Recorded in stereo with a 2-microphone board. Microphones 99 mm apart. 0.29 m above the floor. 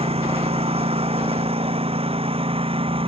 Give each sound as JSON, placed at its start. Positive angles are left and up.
{"t": 0.0, "sound": "a lawn mower", "side_deg": -90}